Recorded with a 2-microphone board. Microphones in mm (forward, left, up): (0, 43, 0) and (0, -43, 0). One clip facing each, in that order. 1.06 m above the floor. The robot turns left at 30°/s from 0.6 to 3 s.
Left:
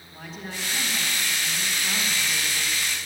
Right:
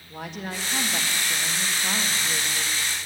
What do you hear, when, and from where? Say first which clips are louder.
0.1 s a woman speaking: right 4 dB; 75° right, 1.5 m; by 3.0 s 145° right, 1.5 m